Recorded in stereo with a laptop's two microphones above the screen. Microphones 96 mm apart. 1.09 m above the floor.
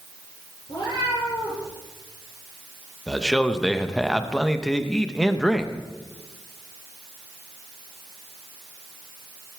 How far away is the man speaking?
About 0.7 m.